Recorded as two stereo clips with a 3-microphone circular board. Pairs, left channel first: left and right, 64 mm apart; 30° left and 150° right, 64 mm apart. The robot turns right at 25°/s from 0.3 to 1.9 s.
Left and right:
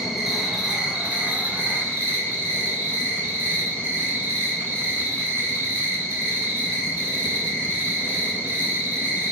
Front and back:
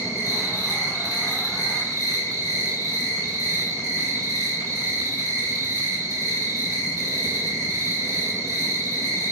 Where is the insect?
175° right, 2.5 m; by 9.3 s 135° right, 2.5 m.